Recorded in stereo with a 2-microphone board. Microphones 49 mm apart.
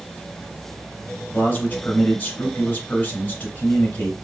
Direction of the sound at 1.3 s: 40° left (ahead or behind).